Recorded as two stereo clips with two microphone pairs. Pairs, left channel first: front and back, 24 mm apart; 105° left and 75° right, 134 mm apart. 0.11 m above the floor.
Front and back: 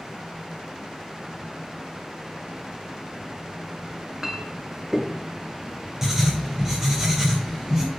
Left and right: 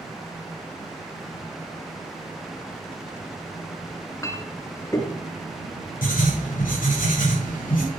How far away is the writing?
About 3.5 m.